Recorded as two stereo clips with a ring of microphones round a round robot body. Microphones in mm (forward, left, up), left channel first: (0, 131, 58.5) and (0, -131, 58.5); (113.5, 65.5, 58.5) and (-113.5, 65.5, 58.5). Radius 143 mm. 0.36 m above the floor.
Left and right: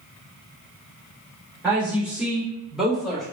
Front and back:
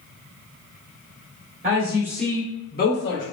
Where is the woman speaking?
170° right, 0.9 m; by 3.2 s straight ahead, 1.3 m.